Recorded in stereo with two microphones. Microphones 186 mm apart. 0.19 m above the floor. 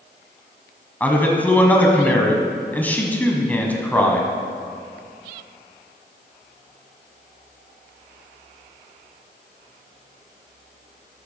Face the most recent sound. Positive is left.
turn(degrees=10)  # may be behind; listen again after turning